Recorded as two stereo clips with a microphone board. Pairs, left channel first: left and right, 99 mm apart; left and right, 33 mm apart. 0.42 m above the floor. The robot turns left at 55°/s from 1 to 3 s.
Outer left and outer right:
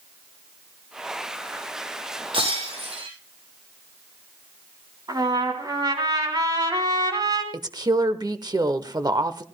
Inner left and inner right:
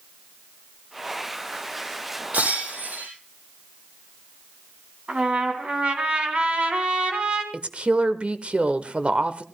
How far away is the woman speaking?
About 1.0 m.